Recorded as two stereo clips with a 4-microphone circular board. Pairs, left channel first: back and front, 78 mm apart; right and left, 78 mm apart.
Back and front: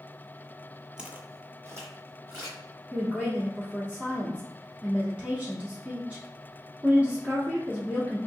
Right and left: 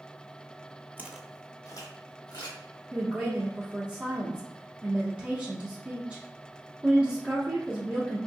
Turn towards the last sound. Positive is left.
turn(degrees=35)